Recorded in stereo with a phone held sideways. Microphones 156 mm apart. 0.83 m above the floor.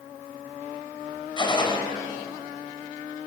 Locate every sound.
1.4 s a gunshot: 30° left (ahead or behind), 3.5 m